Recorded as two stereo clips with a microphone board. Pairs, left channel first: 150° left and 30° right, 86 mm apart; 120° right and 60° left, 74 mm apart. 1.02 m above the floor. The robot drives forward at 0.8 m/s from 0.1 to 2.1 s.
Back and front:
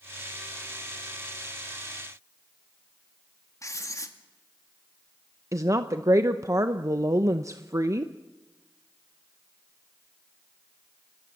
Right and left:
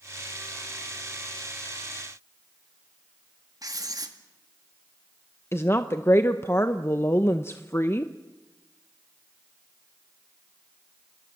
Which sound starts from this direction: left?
Writing, at 3.6 s.